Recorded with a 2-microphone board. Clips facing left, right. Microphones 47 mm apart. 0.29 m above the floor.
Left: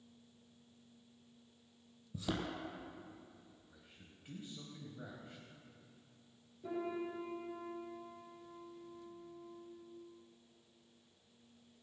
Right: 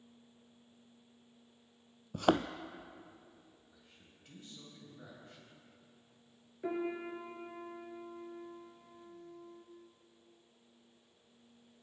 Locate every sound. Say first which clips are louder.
2.1 s a thud: right 10 dB; 70° right (ahead or behind), 0.7 m
3.7 s a man speaking: left 1 dB; 20° left (ahead or behind), 1.9 m
6.6 s a piano: right 3 dB; 65° right (ahead or behind), 3 m